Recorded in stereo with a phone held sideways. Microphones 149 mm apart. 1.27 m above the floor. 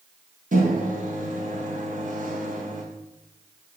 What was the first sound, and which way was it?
A microwave, 60° right (ahead or behind).